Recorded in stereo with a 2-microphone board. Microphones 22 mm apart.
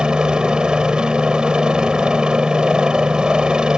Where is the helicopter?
40° right (ahead or behind).